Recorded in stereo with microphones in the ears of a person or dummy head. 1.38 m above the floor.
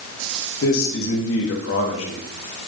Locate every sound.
0.6 s a man speaking: 80° left, 2.5 m